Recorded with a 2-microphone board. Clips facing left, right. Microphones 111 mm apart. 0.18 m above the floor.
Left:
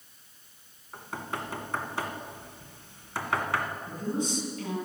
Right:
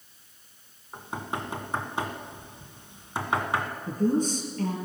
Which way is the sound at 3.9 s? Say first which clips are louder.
Right 9 dB; 55° right (ahead or behind).